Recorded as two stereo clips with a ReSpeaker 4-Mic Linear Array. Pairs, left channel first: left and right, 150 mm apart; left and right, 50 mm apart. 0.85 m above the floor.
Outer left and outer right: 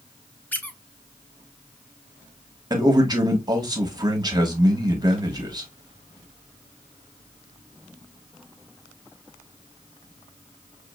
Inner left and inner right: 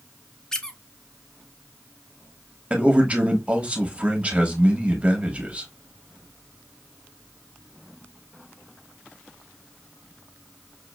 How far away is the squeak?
About 0.5 m.